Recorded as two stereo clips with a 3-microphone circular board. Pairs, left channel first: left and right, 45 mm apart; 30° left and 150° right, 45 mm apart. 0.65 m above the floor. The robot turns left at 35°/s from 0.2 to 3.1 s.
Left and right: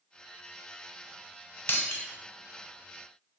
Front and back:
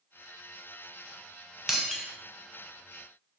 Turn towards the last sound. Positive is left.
turn(degrees=80)